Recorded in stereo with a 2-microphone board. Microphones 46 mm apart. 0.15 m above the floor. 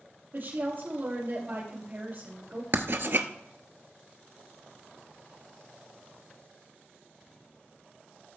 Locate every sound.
0.3 s a woman speaking: 50° right (ahead or behind), 4 m
2.7 s writing: 55° right (ahead or behind), 0.8 m